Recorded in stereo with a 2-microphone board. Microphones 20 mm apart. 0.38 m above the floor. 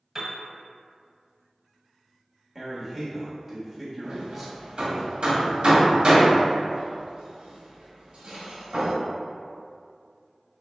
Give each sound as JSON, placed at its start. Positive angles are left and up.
{"t": 0.1, "sound": "a piano", "side_deg": -15, "distance_m": 1.0}
{"t": 2.5, "sound": "a man speaking", "side_deg": -10, "distance_m": 1.2}
{"t": 4.0, "sound": "hammering", "side_deg": -55, "distance_m": 1.6}